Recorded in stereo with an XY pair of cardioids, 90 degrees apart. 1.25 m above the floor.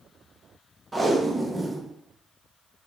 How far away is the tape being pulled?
About 0.6 m.